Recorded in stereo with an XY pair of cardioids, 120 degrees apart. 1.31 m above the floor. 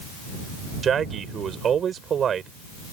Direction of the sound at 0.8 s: 45° right.